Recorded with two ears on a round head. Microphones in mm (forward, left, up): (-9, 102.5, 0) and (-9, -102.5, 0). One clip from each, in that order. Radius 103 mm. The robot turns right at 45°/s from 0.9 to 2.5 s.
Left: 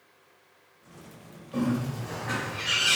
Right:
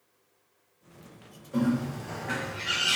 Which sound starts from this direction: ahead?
A bird, at 1.5 s.